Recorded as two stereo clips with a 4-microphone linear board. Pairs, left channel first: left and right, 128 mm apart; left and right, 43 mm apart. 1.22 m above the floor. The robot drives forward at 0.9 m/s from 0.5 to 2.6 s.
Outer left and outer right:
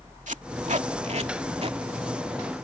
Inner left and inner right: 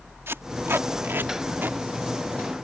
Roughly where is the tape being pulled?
Right.